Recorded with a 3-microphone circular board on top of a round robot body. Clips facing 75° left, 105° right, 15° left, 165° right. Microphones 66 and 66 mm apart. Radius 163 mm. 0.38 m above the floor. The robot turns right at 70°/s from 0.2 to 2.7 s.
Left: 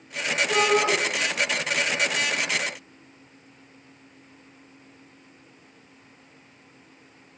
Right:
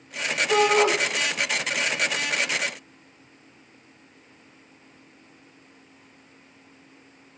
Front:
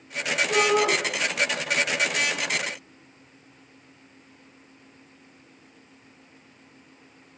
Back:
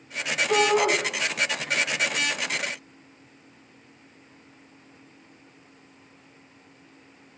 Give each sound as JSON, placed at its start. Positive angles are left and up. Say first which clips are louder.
{"t": 0.5, "sound": "a shout", "louder": "right 3 dB, back 1 dB", "azimuth_deg": -160, "distance_m": 5.5}